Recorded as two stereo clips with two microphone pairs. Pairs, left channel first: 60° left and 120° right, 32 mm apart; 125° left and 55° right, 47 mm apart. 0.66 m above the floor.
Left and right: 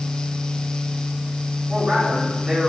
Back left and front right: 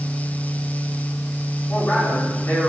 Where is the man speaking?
170° left, 5 m.